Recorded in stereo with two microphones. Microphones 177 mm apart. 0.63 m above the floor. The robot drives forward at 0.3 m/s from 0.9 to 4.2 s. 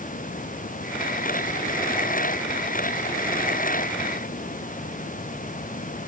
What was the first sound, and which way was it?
Only background noise.